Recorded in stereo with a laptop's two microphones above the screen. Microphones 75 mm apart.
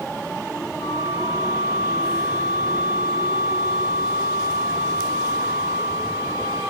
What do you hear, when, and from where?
0.8 s a flute: 85° left, 2.5 m